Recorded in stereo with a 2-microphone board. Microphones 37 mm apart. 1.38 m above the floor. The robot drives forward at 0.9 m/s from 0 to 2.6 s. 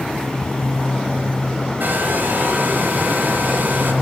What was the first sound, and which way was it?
A hair dryer, 55° right (ahead or behind).